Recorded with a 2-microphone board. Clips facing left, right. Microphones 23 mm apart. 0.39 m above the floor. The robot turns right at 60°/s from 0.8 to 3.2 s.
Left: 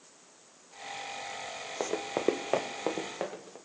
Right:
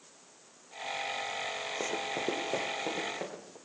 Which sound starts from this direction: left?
Running footsteps, at 1.8 s.